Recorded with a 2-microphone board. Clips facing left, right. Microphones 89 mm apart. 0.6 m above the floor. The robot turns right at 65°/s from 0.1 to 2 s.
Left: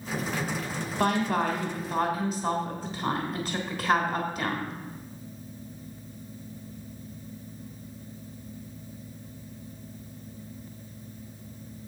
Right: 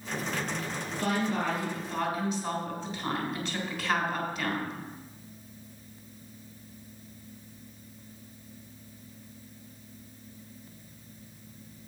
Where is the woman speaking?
70° left, 3 m; by 4.7 s 135° left, 3 m.